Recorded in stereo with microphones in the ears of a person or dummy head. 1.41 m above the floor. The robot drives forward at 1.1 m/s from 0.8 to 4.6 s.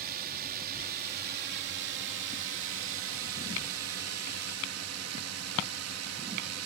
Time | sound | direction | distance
0.0 | a drone | 50° right (ahead or behind) | ?